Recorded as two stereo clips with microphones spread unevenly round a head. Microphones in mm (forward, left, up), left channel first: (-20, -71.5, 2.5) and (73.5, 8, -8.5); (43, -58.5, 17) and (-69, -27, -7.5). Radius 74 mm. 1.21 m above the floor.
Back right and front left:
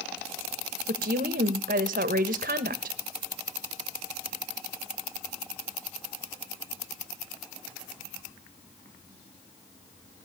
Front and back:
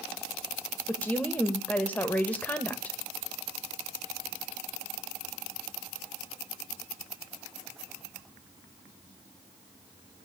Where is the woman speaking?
65° left, 1.5 m.